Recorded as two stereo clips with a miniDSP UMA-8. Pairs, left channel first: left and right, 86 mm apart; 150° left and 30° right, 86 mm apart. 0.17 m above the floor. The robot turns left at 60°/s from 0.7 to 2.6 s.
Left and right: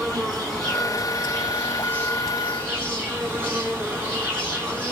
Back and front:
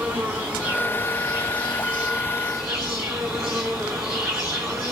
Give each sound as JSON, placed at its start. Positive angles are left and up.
{"t": 0.0, "sound": "an insect", "azimuth_deg": 10, "distance_m": 1.6}